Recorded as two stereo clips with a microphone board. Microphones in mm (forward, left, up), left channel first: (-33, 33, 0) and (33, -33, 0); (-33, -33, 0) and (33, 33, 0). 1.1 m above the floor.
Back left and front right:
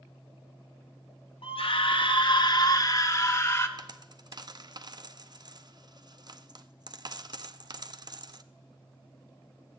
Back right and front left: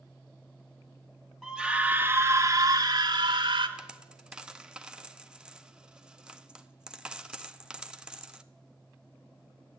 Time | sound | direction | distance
1.4 | a scream | 135° left | 0.9 m
3.8 | a dropped coin | 35° right | 0.5 m